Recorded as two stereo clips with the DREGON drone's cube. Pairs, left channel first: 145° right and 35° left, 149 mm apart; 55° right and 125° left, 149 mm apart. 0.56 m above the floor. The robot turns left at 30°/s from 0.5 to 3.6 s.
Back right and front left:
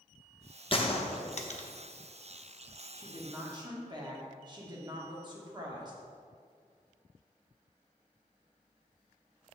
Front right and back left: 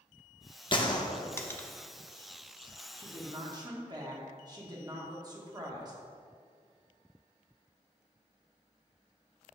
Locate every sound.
0.7 s a gunshot: 105° right, 0.6 m; by 1.7 s 130° right, 0.6 m
2.9 s a woman speaking: 95° left, 1.3 m; by 6.0 s 75° left, 1.3 m